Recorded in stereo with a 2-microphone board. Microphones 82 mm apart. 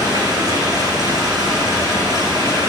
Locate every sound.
0.0 s running water: 60° right (ahead or behind), 4.5 m